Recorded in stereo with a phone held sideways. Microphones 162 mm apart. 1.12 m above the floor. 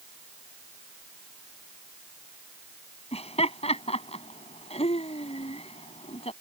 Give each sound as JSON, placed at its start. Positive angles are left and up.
{"t": 3.1, "sound": "laughter", "side_deg": 40}